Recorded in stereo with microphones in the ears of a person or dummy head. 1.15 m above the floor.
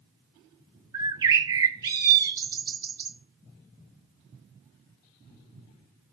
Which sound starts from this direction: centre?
A bird, at 0.9 s.